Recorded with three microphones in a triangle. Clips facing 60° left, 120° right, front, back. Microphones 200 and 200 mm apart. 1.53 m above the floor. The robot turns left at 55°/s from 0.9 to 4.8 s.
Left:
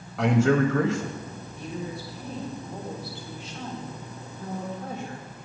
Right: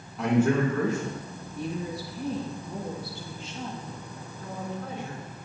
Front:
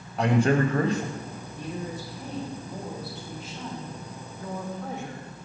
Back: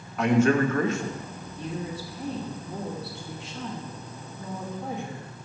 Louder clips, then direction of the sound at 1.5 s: Right 3 dB, back 1 dB; 75° right.